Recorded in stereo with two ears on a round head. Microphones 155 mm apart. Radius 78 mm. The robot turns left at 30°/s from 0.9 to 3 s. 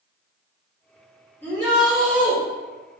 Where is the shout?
15° left (ahead or behind), 1.7 m; by 2.4 s 15° right (ahead or behind), 1.7 m.